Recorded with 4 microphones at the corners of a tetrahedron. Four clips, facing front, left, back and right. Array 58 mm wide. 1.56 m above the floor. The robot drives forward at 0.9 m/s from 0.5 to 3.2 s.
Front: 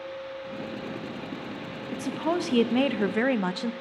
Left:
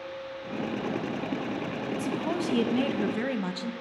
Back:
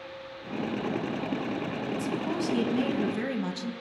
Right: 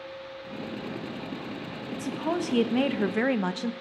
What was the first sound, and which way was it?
A woman speaking, 20° right.